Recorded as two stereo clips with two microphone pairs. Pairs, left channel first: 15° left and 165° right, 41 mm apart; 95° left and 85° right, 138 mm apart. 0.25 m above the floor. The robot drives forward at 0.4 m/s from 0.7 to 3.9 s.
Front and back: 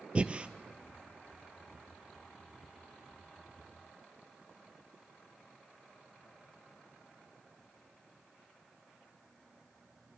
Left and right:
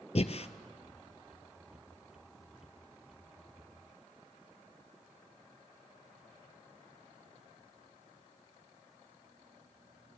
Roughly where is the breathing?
Behind left.